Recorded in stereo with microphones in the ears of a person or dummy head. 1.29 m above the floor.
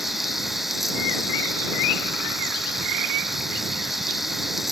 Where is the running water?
Centre (ahead or behind).